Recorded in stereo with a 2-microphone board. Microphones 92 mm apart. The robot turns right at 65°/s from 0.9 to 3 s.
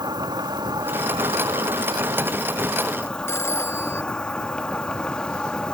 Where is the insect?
125° right; by 5.7 s 10° left.